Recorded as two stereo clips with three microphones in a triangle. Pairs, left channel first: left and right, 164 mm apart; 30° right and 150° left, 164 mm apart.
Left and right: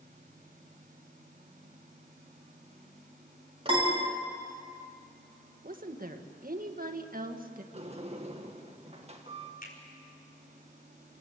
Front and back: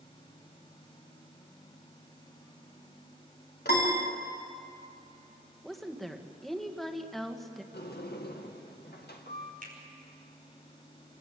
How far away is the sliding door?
About 1.8 m.